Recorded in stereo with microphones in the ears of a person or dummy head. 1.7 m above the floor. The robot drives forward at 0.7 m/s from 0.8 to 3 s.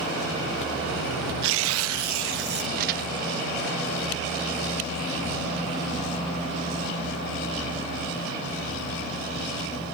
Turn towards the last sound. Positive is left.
turn(degrees=-55)  # may be behind; listen again after turning